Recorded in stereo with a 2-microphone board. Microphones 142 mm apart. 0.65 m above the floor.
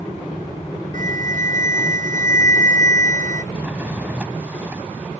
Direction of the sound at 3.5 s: 10° right (ahead or behind).